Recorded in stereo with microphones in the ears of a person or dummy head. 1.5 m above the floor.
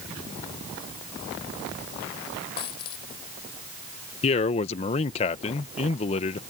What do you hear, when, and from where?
2.6 s a dropped coin: 25° left (ahead or behind)
4.2 s a man speaking: 35° left (ahead or behind)